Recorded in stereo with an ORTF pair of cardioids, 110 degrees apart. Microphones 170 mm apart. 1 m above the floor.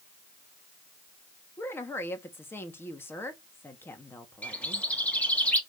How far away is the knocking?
I don't hear knocking.